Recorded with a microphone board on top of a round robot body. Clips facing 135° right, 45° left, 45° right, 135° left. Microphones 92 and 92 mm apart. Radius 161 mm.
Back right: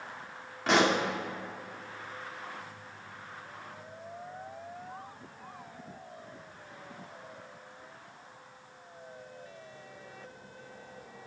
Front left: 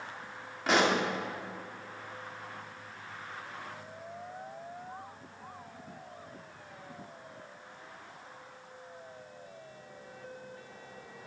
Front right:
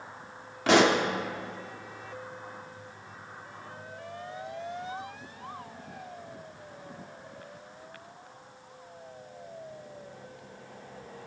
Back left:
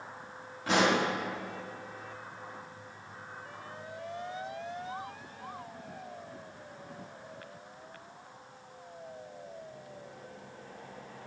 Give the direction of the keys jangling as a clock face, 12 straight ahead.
I don't hear keys jangling.